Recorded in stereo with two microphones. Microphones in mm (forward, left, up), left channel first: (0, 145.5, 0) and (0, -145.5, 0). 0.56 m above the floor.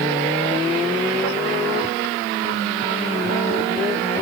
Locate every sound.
Only background noise.